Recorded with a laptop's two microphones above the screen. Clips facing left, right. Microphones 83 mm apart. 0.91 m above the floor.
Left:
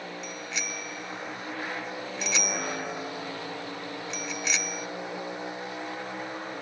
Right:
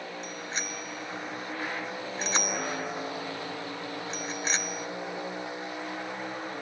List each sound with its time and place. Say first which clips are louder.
0.2 s a bicycle bell: even; 40° right (ahead or behind)